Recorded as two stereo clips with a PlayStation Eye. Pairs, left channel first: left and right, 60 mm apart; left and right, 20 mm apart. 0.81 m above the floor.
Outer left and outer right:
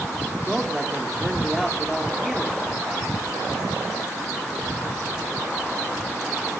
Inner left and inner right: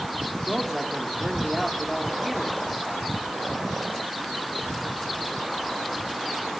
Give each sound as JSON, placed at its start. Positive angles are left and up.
{"t": 0.5, "sound": "a man speaking", "side_deg": 0, "distance_m": 2.5}